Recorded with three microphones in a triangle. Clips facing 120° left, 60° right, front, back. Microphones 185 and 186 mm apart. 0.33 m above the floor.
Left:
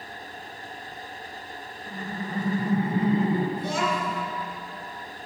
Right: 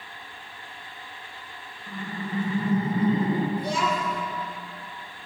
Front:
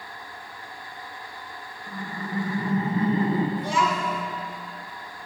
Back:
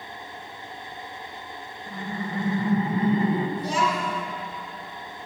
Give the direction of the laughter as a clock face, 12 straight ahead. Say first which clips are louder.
Right 1 dB, back 2 dB; 7 o'clock.